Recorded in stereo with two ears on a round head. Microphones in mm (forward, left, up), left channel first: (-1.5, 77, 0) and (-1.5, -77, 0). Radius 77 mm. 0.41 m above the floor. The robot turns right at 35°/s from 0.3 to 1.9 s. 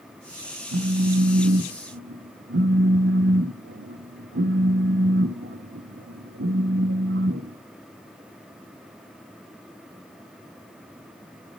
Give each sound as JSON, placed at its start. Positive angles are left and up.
{"t": 0.7, "sound": "a phone buzzing", "azimuth_deg": -105, "distance_m": 0.6}